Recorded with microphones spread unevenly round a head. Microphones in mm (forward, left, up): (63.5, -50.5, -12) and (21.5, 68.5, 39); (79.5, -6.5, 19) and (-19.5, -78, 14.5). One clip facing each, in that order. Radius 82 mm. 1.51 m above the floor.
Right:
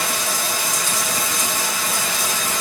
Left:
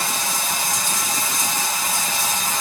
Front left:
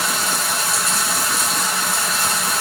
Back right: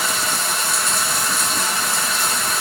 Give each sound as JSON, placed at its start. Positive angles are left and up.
{"t": 0.0, "sound": "running water", "azimuth_deg": -50, "distance_m": 1.2}